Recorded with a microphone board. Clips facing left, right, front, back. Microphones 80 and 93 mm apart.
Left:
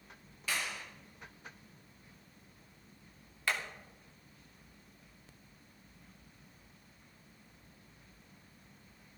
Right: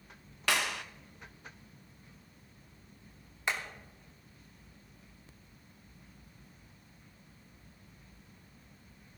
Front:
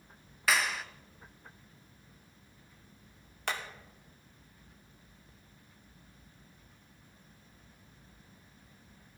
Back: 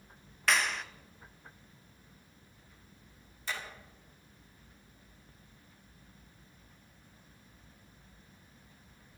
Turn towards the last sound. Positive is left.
turn(degrees=-20)